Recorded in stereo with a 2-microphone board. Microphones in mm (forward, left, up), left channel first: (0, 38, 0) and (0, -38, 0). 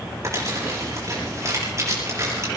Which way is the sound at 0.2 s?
40° right (ahead or behind).